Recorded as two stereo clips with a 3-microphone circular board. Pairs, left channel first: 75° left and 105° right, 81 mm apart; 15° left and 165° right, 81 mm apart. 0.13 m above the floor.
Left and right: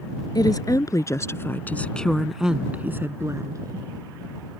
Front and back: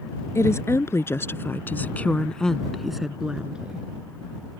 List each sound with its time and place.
0.3 s a woman speaking: 60° left; by 3.9 s 95° right